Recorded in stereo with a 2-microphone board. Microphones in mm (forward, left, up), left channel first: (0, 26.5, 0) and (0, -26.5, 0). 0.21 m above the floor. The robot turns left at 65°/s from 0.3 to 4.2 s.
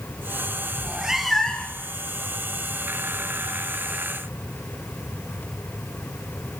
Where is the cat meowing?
150° right, 1.1 m; by 1.8 s 145° left, 1.1 m.